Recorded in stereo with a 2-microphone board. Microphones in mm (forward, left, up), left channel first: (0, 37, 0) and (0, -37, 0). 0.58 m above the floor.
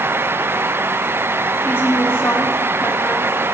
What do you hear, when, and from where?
1.6 s a woman speaking: 30° left (ahead or behind), 1.2 m